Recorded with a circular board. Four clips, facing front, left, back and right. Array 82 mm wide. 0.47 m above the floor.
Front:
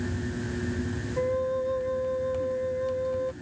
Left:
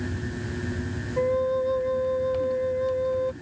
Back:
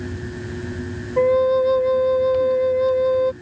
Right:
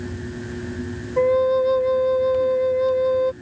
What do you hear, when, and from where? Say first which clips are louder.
1.2 s a flute: right 7 dB, back 12 dB; 145° right